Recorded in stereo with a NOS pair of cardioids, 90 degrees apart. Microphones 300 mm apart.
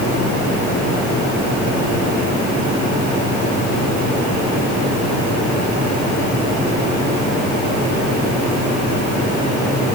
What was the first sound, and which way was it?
Only background noise.